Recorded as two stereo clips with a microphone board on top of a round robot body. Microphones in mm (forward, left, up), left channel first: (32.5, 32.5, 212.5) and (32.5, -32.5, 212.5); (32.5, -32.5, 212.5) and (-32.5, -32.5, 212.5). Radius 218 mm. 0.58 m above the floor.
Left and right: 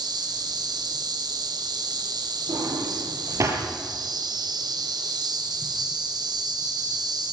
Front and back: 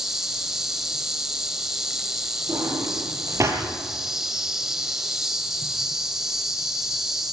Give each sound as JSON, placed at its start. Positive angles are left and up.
{"t": 0.0, "sound": "an insect", "azimuth_deg": -95, "distance_m": 4.0}
{"t": 2.5, "sound": "a drawer", "azimuth_deg": -135, "distance_m": 5.5}